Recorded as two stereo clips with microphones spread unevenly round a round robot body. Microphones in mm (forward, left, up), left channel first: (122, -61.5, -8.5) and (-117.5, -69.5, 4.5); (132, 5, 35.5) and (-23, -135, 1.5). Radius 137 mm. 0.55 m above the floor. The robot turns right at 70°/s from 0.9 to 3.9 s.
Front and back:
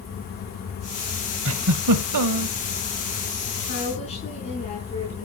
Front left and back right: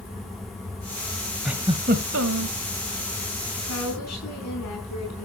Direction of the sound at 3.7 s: 55° left.